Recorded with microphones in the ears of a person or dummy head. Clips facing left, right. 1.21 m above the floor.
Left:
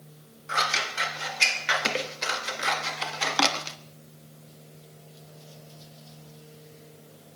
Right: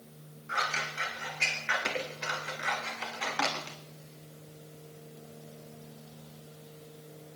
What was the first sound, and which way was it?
Scissors, 60° left (ahead or behind).